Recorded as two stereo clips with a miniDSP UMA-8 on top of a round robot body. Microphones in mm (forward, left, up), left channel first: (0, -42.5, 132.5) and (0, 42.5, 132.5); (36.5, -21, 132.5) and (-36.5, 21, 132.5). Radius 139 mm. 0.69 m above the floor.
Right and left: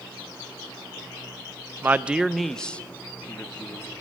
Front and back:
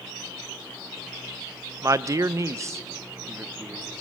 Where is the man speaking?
135° left, 0.6 m; by 3.9 s 150° right, 1.3 m.